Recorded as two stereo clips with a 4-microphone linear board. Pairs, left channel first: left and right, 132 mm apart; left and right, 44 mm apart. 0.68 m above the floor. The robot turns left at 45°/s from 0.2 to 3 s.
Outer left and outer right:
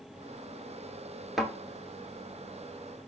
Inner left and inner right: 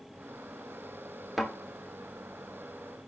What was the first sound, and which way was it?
A thud, centre (ahead or behind).